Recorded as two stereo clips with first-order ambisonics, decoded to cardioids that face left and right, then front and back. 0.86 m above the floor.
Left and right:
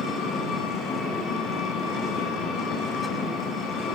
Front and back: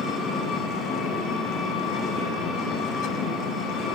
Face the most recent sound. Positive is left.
turn(degrees=50)